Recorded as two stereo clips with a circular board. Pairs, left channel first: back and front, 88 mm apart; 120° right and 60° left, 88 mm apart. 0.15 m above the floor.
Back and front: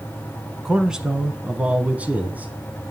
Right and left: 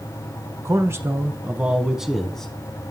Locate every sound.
0.7 s a man speaking: 75° left, 1.2 m; by 2.5 s 45° right, 1.1 m